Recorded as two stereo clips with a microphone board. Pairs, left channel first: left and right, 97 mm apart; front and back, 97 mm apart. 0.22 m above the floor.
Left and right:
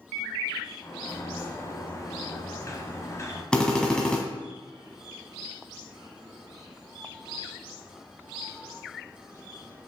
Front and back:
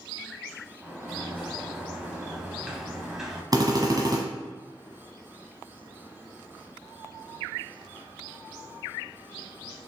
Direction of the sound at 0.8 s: 100° left.